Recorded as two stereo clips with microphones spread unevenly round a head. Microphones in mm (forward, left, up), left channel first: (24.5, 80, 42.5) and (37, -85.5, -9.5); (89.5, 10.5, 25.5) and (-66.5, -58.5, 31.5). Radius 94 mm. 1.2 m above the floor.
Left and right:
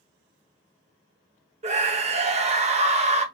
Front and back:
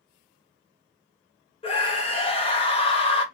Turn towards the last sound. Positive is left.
turn(degrees=-35)